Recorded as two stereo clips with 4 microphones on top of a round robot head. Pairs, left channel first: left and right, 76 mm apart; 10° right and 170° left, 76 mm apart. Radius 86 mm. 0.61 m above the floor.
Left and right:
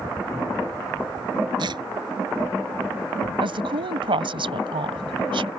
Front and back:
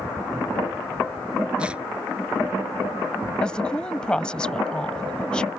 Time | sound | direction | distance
1.6 | tearing paper | 110° right | ?
3.4 | a woman speaking | 90° right | ?